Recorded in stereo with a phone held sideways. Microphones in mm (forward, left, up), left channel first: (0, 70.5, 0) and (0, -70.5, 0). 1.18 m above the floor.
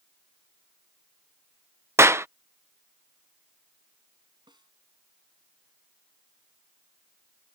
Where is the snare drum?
30° right (ahead or behind).